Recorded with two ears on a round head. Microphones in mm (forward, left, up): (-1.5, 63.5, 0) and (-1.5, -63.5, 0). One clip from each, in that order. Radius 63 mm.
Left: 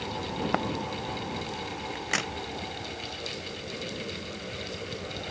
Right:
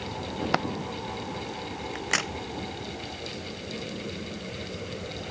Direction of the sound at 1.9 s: 15° right (ahead or behind).